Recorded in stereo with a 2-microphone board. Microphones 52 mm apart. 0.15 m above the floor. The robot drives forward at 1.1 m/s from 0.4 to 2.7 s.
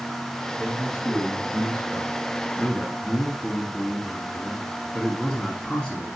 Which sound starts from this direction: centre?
A man speaking, at 0.6 s.